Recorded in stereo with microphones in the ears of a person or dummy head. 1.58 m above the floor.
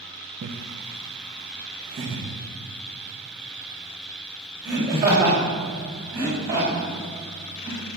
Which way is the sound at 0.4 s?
55° right (ahead or behind).